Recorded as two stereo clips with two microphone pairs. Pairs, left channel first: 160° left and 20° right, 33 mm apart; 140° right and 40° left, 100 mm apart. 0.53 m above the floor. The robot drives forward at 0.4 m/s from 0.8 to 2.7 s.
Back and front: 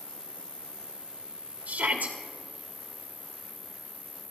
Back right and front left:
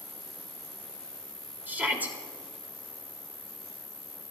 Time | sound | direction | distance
0.0 | an insect | 70° right | 0.9 m
1.7 | a shout | 30° right | 1.8 m